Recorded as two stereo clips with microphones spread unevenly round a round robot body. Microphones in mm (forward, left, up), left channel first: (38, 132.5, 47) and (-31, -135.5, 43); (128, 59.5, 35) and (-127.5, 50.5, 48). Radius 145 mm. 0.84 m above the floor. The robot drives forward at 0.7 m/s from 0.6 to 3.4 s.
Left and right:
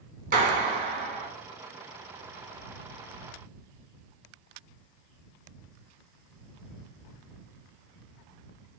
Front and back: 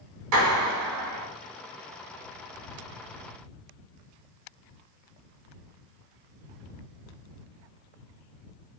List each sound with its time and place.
0.3 s a clap: 165° right, 1.2 m; by 1.3 s 170° right, 1.6 m